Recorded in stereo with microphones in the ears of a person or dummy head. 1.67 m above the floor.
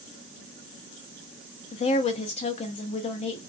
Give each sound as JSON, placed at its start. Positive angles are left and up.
{"t": 1.7, "sound": "a woman speaking", "side_deg": 40, "distance_m": 0.7}